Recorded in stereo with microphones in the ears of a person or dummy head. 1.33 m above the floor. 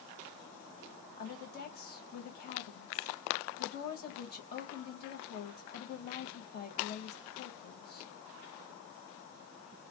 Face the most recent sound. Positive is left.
turn(degrees=50)  # may be behind; listen again after turning